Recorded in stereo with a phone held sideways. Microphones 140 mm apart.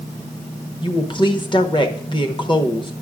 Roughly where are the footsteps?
No footsteps in this recording.